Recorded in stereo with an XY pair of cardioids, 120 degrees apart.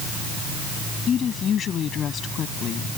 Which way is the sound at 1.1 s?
45° left.